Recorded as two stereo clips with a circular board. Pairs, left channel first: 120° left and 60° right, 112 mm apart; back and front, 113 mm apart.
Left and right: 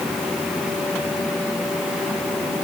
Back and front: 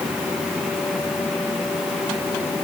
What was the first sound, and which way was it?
Only background noise.